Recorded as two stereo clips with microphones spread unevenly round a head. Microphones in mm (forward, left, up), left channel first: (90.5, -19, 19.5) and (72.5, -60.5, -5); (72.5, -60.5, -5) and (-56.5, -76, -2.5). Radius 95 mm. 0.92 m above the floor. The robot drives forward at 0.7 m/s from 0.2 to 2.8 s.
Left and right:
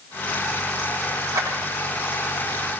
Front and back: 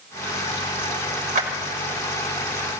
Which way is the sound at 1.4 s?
160° right.